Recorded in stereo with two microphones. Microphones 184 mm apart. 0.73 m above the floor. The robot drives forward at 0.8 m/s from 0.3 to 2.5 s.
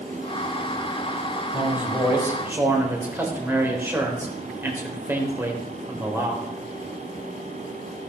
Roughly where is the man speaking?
Centre.